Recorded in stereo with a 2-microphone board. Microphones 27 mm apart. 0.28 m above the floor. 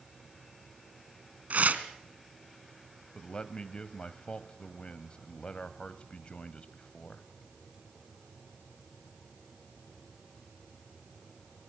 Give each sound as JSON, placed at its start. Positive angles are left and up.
{"t": 1.5, "sound": "tearing paper", "side_deg": -60, "distance_m": 2.0}
{"t": 3.1, "sound": "a man speaking", "side_deg": 40, "distance_m": 1.3}